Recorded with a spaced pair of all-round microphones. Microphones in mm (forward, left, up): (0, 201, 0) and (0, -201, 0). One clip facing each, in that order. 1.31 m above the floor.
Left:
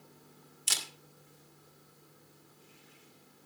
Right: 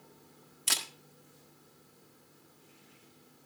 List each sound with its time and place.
0.7 s a camera shutter: 70° right (ahead or behind), 1.6 m